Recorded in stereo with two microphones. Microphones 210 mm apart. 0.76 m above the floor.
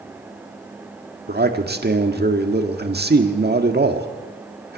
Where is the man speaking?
50° right (ahead or behind), 1.7 m.